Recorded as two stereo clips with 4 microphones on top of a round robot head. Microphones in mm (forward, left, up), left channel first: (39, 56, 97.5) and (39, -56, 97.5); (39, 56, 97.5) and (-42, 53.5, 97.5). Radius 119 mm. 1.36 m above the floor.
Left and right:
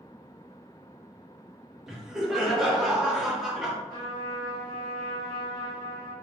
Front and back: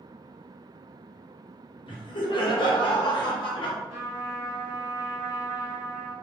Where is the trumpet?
145° left, 1.4 m.